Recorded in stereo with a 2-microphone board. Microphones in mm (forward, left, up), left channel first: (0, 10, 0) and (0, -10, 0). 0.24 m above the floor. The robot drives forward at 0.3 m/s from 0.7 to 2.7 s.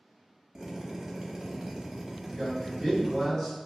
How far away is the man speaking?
About 1.5 m.